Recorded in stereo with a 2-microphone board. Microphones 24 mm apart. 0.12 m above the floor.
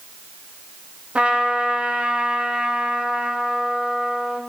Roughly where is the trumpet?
Right.